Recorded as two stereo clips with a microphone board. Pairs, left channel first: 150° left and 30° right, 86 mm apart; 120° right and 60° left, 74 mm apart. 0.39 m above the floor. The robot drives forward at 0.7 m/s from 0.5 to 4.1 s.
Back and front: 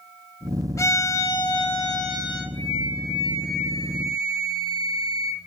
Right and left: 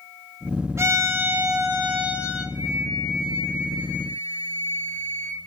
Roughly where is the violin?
Left.